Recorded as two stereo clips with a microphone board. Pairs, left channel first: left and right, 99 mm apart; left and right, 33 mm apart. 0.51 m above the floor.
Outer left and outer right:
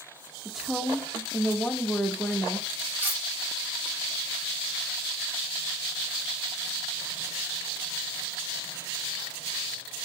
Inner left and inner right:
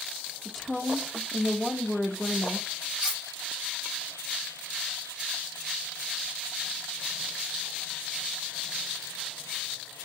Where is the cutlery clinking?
20° right (ahead or behind), 1.2 m.